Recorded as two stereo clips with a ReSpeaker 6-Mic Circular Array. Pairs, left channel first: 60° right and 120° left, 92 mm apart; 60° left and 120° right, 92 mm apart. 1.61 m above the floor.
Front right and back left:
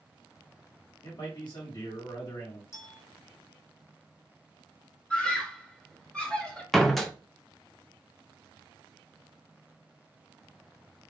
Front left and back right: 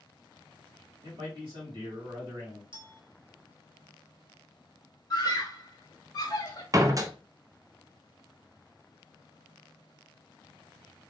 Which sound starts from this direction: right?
A man speaking, at 1.0 s.